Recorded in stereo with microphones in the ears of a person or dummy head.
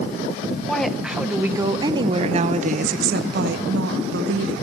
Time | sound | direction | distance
0.7 | a woman speaking | centre (ahead or behind) | 1.5 m